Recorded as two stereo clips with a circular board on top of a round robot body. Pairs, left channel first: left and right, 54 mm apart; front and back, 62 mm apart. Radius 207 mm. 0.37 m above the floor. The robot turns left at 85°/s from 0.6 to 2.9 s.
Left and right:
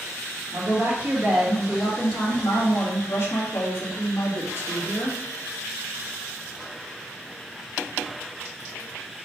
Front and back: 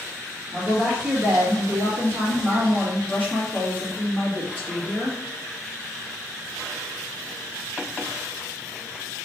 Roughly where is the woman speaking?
Right.